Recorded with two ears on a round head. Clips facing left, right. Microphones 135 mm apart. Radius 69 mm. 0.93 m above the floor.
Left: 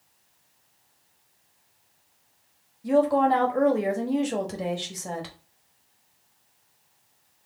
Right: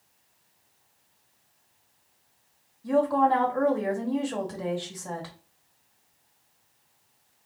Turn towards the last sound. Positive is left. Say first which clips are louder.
# left 2 dB
turn(degrees=25)  # may be behind; listen again after turning